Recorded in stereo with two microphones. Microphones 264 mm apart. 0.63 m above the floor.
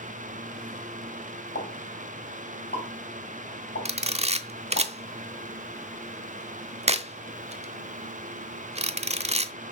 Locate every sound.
1.6 s a pop: 40° left (ahead or behind), 4 m
3.9 s a camera shutter: 25° right (ahead or behind), 0.8 m